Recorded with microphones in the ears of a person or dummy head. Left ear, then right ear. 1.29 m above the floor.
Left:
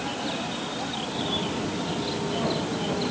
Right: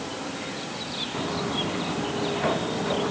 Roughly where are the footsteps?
Right.